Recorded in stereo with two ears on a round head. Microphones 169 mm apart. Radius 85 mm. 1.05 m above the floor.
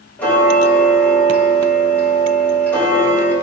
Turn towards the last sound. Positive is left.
turn(degrees=10)  # may be behind; listen again after turning